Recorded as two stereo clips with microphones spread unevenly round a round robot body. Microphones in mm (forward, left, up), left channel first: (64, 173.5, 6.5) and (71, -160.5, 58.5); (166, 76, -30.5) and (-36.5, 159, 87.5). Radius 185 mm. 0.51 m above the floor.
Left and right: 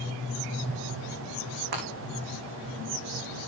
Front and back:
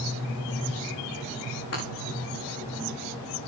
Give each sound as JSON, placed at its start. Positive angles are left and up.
{"t": 1.7, "sound": "breaking glass", "azimuth_deg": -75, "distance_m": 7.0}